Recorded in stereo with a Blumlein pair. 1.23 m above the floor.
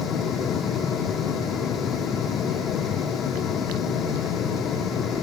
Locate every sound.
0.0 s a fan: 25° left